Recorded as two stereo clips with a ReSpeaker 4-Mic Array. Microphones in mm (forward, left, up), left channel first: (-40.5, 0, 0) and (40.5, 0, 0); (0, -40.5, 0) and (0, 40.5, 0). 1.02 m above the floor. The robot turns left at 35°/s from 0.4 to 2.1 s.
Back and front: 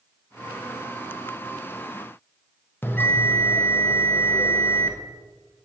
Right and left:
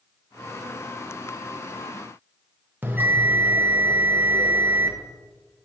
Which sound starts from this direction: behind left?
A bell, at 2.8 s.